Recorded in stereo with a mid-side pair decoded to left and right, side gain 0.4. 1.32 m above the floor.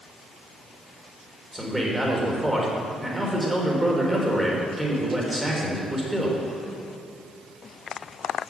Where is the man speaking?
15° right, 3.5 m.